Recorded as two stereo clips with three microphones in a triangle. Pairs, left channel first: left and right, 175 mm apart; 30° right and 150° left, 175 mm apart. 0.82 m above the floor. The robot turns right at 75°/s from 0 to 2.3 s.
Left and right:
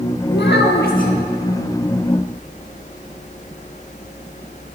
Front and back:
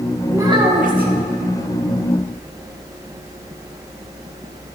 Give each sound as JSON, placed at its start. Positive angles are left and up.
{"t": 0.3, "sound": "a child speaking", "azimuth_deg": 70, "distance_m": 1.4}